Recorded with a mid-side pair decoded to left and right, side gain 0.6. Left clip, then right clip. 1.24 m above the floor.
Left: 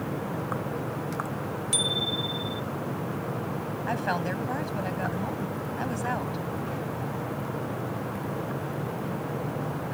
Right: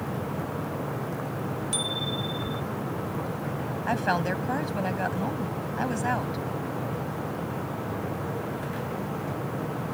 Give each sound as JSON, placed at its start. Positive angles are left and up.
{"t": 1.7, "sound": "a bicycle bell", "azimuth_deg": 25}
{"t": 3.9, "sound": "a woman speaking", "azimuth_deg": -15}